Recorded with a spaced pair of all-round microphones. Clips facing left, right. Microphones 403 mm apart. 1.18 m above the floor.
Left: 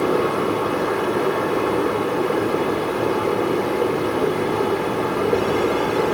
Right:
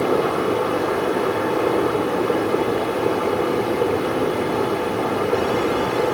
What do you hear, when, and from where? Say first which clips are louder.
0.0 s a fan: even; 60° left (ahead or behind), 3.5 m